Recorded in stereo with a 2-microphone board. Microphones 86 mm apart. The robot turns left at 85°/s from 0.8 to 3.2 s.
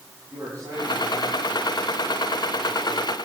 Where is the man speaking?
45° right, 9 m; by 3.1 s 120° left, 9 m.